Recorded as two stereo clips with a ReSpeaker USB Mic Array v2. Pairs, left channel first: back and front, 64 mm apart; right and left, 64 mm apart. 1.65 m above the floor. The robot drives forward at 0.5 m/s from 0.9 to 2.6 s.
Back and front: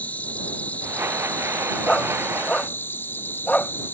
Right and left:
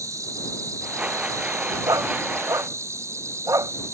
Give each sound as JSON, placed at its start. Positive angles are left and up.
{"t": 0.0, "sound": "an insect", "azimuth_deg": 115}
{"t": 1.9, "sound": "a dog barking", "azimuth_deg": 105}